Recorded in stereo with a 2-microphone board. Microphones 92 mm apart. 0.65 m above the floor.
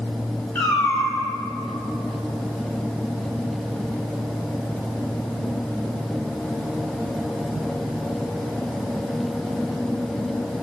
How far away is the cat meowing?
About 1.8 m.